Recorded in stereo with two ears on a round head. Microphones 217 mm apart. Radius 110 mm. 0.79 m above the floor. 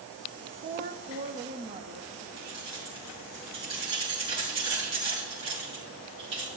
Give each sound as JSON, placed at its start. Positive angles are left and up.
{"t": 0.6, "sound": "a woman speaking", "side_deg": -35, "distance_m": 0.7}
{"t": 2.4, "sound": "keys jangling", "side_deg": -20, "distance_m": 4.5}